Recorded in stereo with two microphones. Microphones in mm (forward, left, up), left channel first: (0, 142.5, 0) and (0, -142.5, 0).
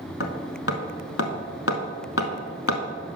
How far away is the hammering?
About 0.8 m.